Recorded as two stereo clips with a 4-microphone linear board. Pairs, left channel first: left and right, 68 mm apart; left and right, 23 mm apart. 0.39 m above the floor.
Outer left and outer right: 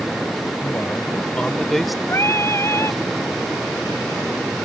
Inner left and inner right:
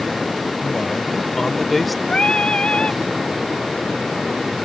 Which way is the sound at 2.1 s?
45° left (ahead or behind).